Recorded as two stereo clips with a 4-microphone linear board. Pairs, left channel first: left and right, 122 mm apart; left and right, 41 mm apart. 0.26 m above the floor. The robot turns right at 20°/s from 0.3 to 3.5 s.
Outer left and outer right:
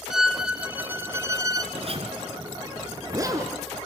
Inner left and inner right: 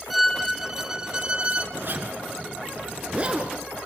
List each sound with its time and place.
0.1 s a violin: 5° right (ahead or behind), 0.6 m; by 1.6 s 30° right (ahead or behind), 0.6 m
1.7 s a zipper: 60° right, 1.9 m; by 3.6 s 25° right, 1.9 m